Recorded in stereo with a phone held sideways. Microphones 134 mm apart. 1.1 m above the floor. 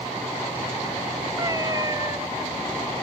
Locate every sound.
1.4 s a cat meowing: 25° right (ahead or behind)